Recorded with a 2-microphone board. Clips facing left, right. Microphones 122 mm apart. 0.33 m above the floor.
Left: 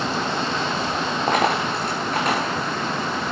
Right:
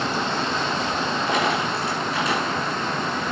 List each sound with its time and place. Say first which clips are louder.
1.3 s a dropped coin: left 4 dB; 45° left (ahead or behind), 4.5 m